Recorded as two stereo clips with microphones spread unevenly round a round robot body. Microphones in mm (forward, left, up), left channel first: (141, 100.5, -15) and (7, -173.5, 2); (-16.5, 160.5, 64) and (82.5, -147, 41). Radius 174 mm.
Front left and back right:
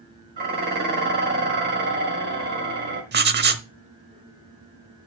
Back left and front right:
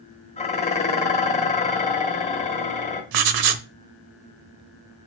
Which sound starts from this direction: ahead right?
Writing, at 3.1 s.